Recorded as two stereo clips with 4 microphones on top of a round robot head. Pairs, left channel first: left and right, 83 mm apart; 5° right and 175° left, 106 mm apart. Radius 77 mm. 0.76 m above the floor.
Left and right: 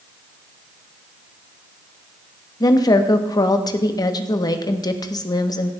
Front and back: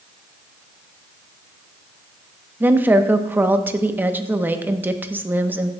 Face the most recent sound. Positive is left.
turn(degrees=110)